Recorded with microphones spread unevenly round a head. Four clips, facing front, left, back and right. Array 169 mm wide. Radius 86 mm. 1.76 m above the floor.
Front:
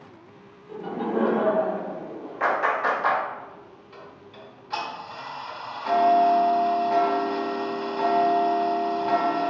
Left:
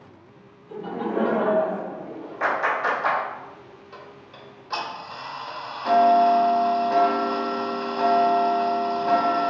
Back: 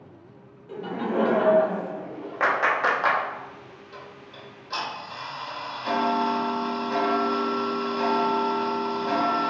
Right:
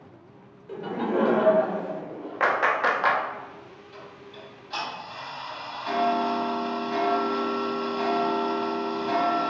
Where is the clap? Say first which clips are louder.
Right 1 dB, even; 140° right, 1.1 m.